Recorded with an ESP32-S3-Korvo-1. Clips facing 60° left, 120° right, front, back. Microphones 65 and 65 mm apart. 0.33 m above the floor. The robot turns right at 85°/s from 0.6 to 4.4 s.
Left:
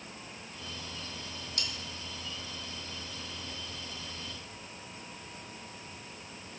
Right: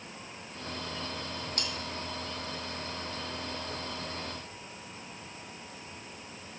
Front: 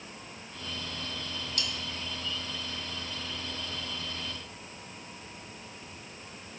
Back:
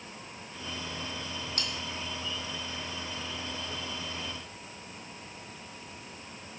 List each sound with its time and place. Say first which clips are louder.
1.6 s cutlery clinking: right 1 dB, front 1 dB; 150° right, 1.2 m; by 1.7 s 135° right, 1.2 m